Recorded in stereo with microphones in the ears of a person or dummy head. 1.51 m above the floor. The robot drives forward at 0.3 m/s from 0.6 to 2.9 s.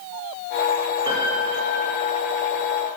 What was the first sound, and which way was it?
A piano, 20° right (ahead or behind).